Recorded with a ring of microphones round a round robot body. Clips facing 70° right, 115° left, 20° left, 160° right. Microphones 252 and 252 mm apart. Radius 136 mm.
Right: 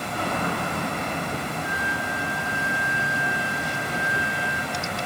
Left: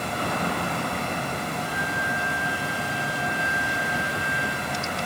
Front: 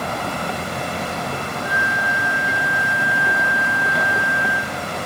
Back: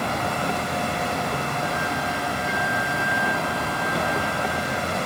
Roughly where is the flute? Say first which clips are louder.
Even, even; behind.